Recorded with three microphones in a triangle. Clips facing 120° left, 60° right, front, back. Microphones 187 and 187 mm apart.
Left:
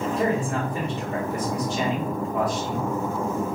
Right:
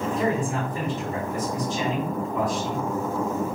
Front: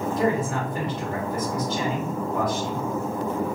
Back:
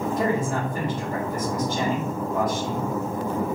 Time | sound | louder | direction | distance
0.2 | a man speaking | left 1 dB, front 2 dB | 115° left | 1.9 m